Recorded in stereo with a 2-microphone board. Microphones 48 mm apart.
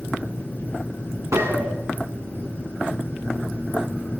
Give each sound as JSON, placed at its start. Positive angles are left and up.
{"t": 1.3, "sound": "a gunshot", "side_deg": -80, "distance_m": 6.5}